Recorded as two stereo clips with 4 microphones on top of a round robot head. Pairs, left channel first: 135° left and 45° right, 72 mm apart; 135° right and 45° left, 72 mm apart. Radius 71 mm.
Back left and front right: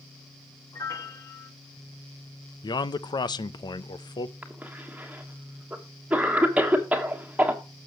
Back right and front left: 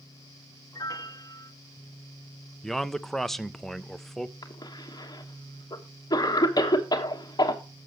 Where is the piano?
175° right, 1.6 m.